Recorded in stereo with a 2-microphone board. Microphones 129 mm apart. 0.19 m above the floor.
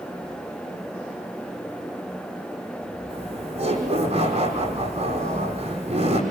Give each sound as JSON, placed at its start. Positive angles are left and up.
{"t": 3.1, "sound": "laughter", "side_deg": -50, "distance_m": 9.5}